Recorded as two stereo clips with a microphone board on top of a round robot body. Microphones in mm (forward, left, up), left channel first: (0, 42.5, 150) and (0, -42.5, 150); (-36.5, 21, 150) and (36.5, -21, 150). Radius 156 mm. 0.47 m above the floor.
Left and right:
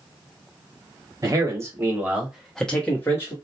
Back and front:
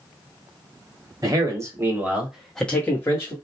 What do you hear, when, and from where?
1.2 s a man speaking: 55° right, 1.7 m; by 3.4 s 130° left, 1.4 m